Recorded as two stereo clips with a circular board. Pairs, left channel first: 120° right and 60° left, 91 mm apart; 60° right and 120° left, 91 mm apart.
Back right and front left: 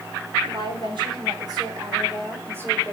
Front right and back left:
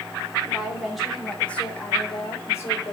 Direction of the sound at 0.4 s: 45° left.